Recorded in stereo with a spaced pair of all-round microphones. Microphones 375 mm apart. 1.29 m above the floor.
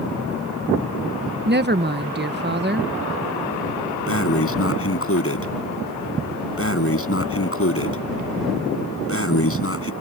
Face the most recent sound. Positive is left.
turn(degrees=35)  # may be behind; listen again after turning